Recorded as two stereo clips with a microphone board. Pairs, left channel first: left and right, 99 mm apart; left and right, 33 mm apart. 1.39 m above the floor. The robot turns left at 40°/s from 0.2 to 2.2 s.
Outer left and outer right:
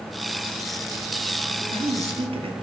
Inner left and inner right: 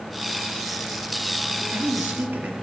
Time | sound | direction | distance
1.6 | a man speaking | 75° right (ahead or behind) | 1.0 m